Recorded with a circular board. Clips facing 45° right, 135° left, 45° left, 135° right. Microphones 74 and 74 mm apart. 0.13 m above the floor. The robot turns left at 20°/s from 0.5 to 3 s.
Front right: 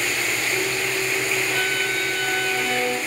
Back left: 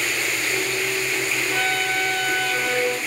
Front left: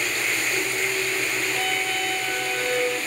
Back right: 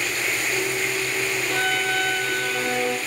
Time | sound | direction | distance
1.5 | a violin | 135° right | 6.5 m